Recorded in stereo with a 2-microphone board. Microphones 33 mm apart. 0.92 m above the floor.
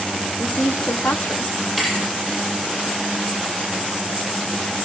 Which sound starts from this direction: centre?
A thud, at 1.8 s.